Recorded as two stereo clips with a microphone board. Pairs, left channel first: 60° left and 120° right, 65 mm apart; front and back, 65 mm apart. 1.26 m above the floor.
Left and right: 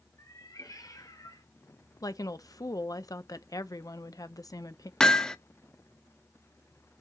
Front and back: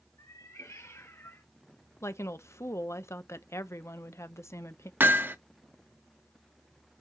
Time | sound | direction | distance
0.2 | a cat meowing | 30° left | 4 m
2.0 | a woman speaking | 40° left | 0.9 m
5.0 | hammering | 135° left | 0.9 m